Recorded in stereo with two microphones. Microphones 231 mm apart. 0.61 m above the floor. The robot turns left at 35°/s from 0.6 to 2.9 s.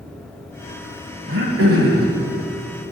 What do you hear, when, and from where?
1.3 s throat clearing: 65° right (ahead or behind), 1.1 m; by 2.1 s 85° right, 1.1 m